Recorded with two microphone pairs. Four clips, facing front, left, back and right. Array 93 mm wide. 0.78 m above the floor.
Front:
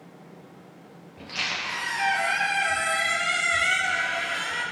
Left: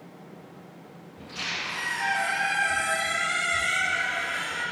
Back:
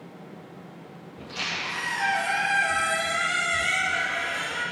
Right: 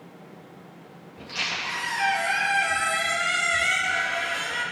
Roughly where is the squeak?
Ahead right.